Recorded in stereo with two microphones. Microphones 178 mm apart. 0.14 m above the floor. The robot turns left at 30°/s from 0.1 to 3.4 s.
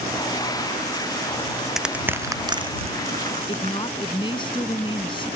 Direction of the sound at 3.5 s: 30° left (ahead or behind).